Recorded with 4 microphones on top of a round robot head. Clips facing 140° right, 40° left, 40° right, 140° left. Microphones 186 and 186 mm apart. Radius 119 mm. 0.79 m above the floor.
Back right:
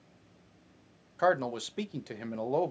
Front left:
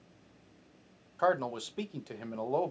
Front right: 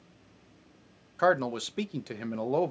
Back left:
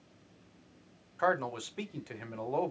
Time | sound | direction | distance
1.2 | a man speaking | 65° right | 0.5 m